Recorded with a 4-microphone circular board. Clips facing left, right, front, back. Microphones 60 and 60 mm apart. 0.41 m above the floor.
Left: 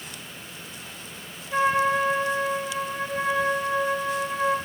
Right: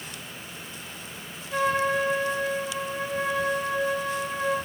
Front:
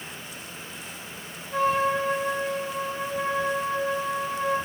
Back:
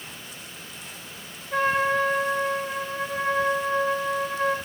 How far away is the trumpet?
About 3 m.